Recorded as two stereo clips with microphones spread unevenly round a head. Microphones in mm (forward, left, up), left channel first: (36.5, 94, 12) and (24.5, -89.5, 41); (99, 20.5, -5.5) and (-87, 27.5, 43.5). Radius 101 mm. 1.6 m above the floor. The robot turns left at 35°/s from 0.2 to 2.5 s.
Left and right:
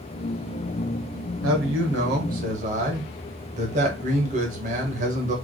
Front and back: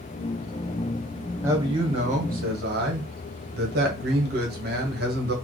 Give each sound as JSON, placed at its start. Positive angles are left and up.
{"t": 1.4, "sound": "a man speaking", "azimuth_deg": -110, "distance_m": 1.0}